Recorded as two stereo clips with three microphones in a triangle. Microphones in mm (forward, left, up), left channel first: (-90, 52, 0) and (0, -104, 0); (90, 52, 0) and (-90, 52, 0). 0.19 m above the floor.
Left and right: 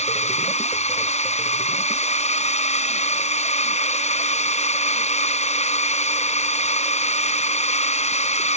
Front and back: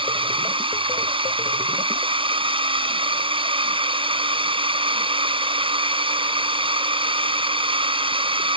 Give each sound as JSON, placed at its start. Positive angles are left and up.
{"t": 0.0, "sound": "a drone", "azimuth_deg": 140}